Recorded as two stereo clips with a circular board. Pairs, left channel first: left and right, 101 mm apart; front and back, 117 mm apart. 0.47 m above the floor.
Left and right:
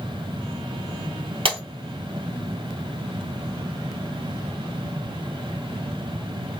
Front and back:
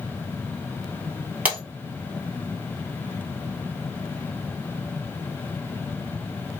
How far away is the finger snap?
No finger snap in this recording.